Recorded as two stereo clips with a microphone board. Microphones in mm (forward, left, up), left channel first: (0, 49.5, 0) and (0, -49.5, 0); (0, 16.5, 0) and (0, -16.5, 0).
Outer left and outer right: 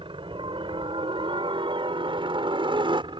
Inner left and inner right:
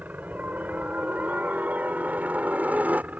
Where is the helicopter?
60° right (ahead or behind); by 3.2 s 55° right (ahead or behind).